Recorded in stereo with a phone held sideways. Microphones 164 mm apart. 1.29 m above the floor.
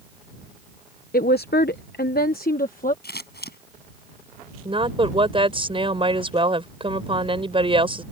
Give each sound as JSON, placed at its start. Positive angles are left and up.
{"t": 1.1, "sound": "a woman speaking", "side_deg": 65}
{"t": 3.0, "sound": "scissors", "side_deg": 75}
{"t": 4.7, "sound": "a woman speaking", "side_deg": -35}